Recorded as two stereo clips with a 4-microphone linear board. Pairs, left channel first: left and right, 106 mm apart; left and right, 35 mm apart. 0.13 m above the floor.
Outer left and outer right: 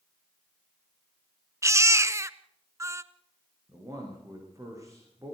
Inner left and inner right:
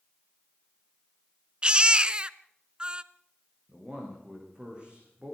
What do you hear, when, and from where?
1.6 s a baby crying: 30° right (ahead or behind), 0.7 m
3.7 s a man speaking: 30° right (ahead or behind), 10 m